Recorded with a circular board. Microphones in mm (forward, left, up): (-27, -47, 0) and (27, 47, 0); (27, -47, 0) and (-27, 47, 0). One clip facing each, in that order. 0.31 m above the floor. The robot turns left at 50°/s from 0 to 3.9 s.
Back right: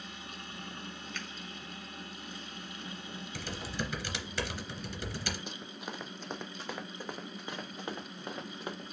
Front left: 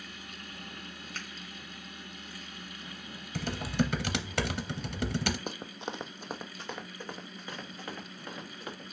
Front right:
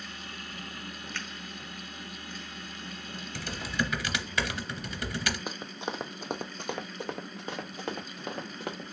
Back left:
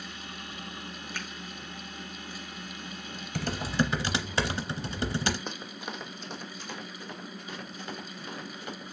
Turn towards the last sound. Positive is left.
turn(degrees=-55)